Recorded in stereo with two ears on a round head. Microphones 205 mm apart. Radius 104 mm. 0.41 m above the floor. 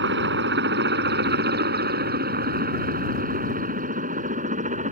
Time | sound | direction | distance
0.0 | a helicopter | 55° right (ahead or behind) | ?